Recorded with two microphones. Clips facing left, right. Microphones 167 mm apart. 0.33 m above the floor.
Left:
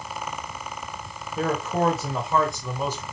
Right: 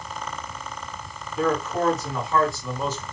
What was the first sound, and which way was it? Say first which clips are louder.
A man speaking: right 1 dB; 40° left (ahead or behind).